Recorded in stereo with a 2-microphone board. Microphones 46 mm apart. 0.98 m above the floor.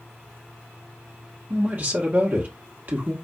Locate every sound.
1.5 s a man speaking: 40° right (ahead or behind), 1.3 m